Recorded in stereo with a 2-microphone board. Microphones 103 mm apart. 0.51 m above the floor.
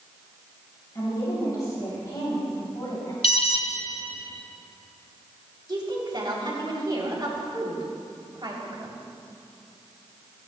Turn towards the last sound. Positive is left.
turn(degrees=-50)  # may be behind; listen again after turning